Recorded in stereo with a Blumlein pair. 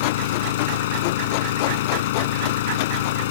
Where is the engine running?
55° left.